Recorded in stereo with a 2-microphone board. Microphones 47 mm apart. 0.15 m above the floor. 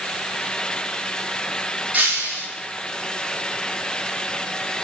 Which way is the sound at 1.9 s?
30° right (ahead or behind).